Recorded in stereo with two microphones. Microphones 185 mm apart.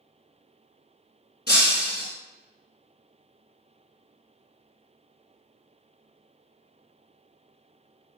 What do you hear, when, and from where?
1.5 s breaking glass: 65° left (ahead or behind), 2.0 m